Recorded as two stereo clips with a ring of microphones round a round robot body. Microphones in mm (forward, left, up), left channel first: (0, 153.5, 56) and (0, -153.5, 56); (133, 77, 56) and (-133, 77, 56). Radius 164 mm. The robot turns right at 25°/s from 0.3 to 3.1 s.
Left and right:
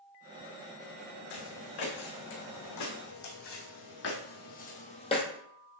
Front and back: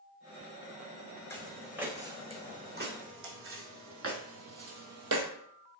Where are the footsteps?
80° left, 3 m; by 5.3 s 165° left, 1.4 m.